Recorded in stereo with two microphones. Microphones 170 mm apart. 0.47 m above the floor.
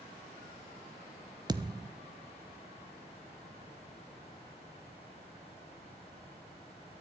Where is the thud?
25° right (ahead or behind), 0.7 m.